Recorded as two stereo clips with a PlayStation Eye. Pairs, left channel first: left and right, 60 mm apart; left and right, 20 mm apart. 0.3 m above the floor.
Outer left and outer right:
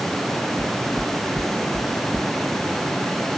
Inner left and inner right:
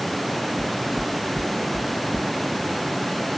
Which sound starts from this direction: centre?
Knocking, at 0.6 s.